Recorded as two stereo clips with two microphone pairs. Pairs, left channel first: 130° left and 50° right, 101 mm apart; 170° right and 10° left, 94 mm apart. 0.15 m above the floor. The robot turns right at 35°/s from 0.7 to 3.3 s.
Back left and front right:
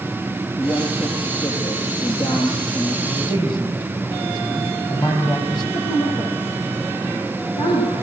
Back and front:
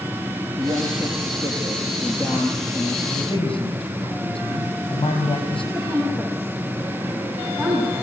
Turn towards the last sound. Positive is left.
turn(degrees=100)